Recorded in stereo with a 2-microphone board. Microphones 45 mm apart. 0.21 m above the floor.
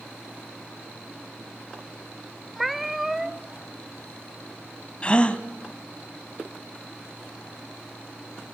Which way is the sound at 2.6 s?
5° right (ahead or behind).